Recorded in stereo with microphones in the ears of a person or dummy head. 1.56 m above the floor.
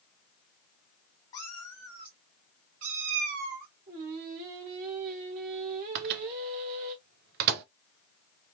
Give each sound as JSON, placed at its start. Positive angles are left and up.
{"t": 1.3, "sound": "a cat meowing", "side_deg": 15, "distance_m": 0.8}
{"t": 3.9, "sound": "singing", "side_deg": -35, "distance_m": 1.5}
{"t": 6.0, "sound": "a microwave", "side_deg": -55, "distance_m": 0.7}